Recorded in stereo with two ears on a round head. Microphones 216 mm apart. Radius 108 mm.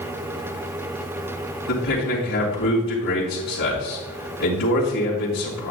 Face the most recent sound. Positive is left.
turn(degrees=60)  # may be behind; listen again after turning